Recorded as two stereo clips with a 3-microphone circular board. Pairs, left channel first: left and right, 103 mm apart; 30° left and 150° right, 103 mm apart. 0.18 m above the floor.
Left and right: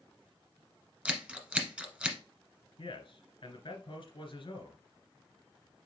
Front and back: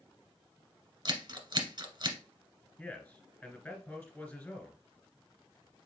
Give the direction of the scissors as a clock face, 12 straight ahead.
5 o'clock.